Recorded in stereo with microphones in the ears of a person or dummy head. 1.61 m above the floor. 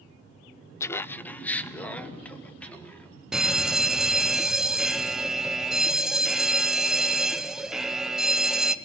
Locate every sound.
0.8 s laughter: 20° left (ahead or behind), 0.6 m; by 3.2 s 10° left (ahead or behind), 4 m
3.3 s a fire alarm: 5° right (ahead or behind), 0.6 m